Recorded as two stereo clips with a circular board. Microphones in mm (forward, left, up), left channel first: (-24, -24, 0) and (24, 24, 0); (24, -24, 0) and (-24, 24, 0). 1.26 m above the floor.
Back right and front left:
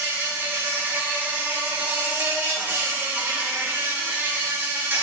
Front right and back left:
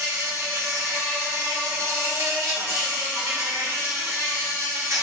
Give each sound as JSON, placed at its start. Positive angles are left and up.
{"t": 0.0, "sound": "an insect", "azimuth_deg": 100, "distance_m": 1.5}